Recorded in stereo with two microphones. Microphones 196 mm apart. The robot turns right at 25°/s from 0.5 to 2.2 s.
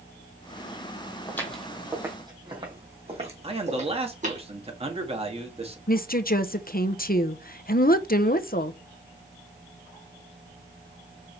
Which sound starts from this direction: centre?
Footsteps, at 1.3 s.